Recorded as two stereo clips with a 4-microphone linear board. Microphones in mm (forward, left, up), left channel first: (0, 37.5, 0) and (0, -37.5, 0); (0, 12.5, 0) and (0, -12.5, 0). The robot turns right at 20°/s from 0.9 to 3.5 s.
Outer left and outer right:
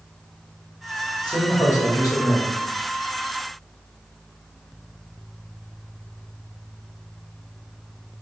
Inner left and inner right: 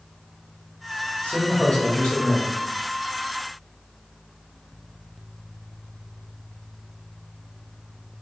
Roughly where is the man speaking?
Left.